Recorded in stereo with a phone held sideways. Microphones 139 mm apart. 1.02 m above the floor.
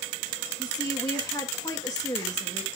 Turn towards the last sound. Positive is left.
turn(degrees=25)  # may be behind; listen again after turning